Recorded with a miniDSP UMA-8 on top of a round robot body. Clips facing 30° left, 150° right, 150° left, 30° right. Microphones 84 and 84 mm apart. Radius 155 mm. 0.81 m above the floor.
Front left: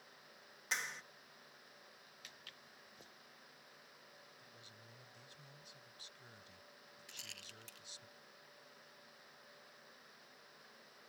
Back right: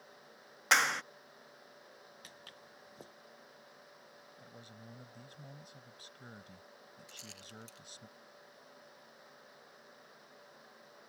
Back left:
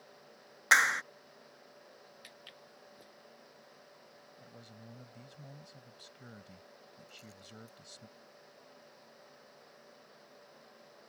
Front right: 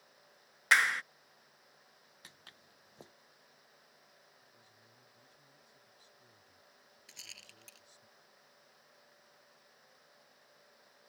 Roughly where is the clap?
Behind right.